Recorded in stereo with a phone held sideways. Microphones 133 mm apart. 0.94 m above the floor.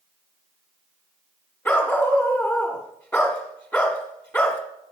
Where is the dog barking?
15° left (ahead or behind), 1.1 m.